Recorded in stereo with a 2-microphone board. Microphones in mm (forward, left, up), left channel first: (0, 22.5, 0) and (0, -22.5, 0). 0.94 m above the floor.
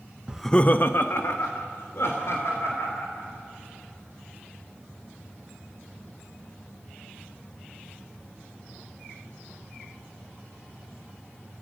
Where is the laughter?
20° right (ahead or behind), 0.6 m; by 3.3 s 80° left, 4.5 m.